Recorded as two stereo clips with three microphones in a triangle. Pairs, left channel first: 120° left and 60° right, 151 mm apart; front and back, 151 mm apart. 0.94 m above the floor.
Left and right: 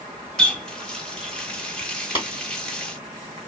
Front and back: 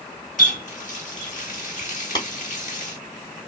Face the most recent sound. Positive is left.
turn(degrees=60)